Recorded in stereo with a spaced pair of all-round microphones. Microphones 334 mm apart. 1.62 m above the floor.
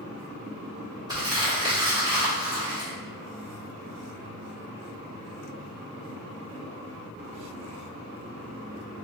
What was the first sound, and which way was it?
Crumpling, 10° right (ahead or behind).